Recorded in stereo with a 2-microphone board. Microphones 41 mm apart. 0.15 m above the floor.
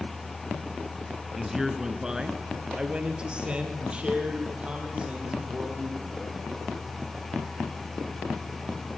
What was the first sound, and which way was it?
A man speaking, 5° right (ahead or behind).